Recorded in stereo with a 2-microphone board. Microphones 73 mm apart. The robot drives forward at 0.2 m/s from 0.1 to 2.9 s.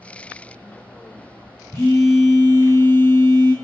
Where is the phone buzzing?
30° left (ahead or behind), 1.0 m.